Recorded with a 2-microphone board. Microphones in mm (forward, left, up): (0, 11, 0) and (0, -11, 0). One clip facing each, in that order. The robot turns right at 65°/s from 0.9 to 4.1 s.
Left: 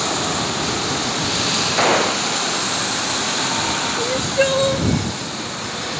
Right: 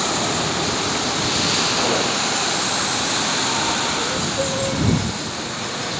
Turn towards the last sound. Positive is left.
turn(degrees=70)  # may be behind; listen again after turning